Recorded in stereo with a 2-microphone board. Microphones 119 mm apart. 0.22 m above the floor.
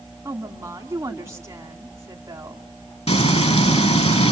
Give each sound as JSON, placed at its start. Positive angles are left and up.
{"t": 0.2, "sound": "a woman speaking", "side_deg": -25, "distance_m": 1.9}
{"t": 3.1, "sound": "frying", "side_deg": 60, "distance_m": 2.0}